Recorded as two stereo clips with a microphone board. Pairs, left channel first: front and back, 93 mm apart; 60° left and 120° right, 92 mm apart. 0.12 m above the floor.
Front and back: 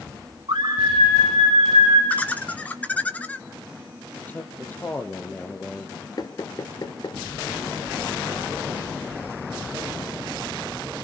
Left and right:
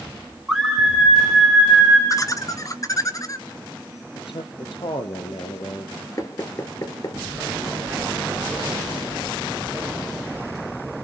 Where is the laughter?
65° left, 1.9 m.